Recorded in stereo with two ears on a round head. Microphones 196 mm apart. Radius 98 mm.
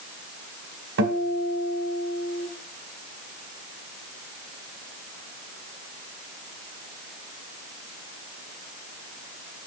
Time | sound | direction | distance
1.0 | a guitar | 60° right (ahead or behind) | 2.5 m